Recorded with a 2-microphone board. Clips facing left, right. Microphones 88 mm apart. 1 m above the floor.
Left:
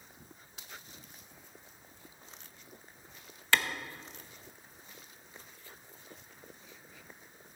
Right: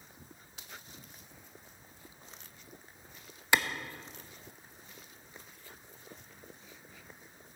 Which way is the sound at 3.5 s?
15° right (ahead or behind).